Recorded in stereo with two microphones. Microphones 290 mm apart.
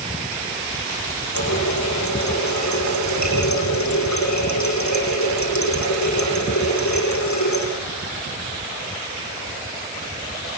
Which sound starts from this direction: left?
A running tap, at 1.3 s.